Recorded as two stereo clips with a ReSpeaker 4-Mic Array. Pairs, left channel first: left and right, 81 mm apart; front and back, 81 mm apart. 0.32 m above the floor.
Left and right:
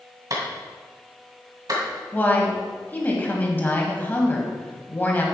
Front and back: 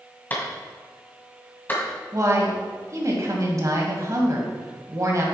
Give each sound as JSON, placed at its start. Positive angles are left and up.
{"t": 0.3, "sound": "a clap", "azimuth_deg": -65, "distance_m": 2.0}
{"t": 2.1, "sound": "a woman speaking", "azimuth_deg": 150, "distance_m": 2.0}